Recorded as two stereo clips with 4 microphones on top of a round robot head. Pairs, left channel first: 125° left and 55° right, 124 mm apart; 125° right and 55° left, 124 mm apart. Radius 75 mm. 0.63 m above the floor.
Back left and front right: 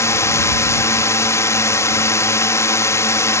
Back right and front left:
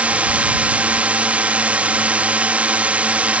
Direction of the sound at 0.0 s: 120° left.